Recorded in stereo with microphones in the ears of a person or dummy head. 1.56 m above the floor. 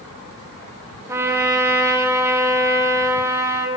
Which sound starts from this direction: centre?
A trumpet, at 1.1 s.